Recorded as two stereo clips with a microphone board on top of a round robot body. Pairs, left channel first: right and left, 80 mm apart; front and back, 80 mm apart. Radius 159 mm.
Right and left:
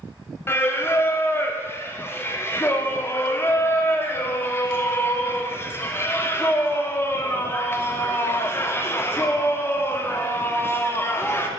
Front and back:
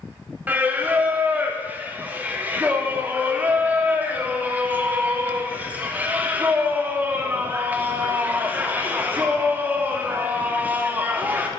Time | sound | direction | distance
0.5 | singing | 125° right | 0.7 m